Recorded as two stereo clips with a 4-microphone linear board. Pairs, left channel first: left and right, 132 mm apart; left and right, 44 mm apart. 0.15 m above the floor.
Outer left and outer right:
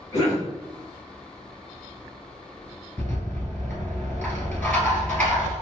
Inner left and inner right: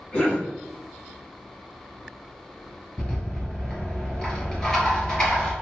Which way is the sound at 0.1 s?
20° left (ahead or behind).